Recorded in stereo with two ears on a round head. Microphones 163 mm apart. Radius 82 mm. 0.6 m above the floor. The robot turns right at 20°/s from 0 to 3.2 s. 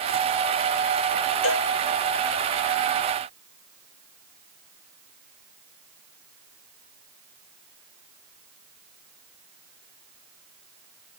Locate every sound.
1.4 s a cowbell: 80° left; by 1.7 s 85° left